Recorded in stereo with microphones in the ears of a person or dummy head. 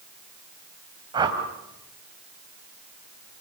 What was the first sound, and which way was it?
A whoosh, 20° right (ahead or behind).